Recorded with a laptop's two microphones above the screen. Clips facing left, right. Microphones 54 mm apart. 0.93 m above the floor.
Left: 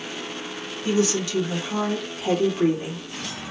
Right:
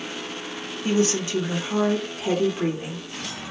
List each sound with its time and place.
0.8 s a woman speaking: 40° right (ahead or behind), 1.4 m; by 3.0 s 5° right (ahead or behind), 2 m